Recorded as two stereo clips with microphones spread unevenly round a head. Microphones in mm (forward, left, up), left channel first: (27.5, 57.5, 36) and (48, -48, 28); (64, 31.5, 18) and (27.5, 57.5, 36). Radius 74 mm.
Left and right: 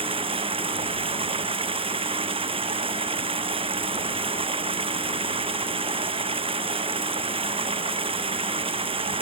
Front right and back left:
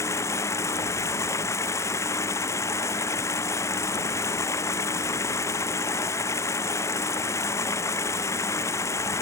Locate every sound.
0.0 s running water: 45° right